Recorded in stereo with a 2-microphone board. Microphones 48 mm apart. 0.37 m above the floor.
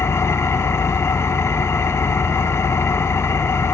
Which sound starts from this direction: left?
An engine running, at 0.0 s.